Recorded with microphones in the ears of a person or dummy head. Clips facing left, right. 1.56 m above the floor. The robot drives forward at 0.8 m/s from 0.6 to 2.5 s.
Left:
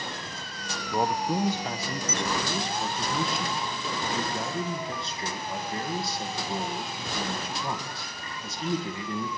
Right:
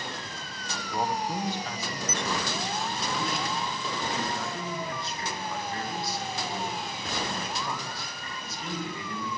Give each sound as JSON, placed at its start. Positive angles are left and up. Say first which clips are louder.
{"t": 0.9, "sound": "a man speaking", "louder": "left 3 dB", "side_deg": 65, "distance_m": 0.8}